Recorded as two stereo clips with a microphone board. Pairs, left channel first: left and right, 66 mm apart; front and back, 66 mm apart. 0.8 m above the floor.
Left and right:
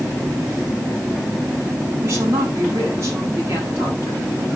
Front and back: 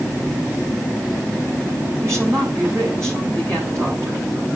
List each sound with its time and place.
2.0 s a woman speaking: 135° right, 7.5 m